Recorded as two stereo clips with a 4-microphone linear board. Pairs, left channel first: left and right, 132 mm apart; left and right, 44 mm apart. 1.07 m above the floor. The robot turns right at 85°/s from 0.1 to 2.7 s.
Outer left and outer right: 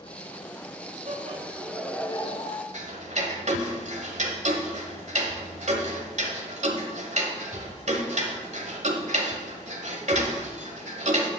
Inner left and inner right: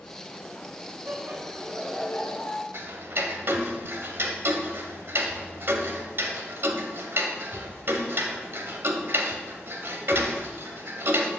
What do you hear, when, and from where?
1.1 s laughter: 65° right, 1.8 m; by 2.6 s 70° left, 1.8 m
2.7 s ticking: 60° right (ahead or behind), 1.4 m